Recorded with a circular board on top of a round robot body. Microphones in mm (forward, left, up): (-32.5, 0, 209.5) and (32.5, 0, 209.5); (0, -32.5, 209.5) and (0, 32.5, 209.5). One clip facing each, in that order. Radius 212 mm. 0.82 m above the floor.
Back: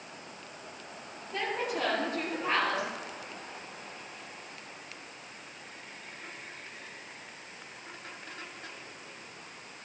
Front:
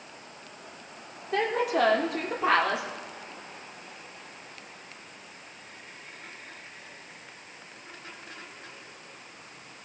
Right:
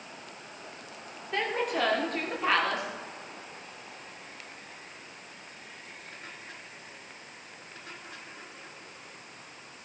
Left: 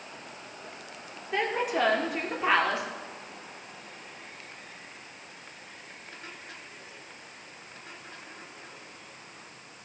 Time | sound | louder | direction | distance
1.3 | a woman speaking | front 7 dB, left 2 dB | 5° left | 3 m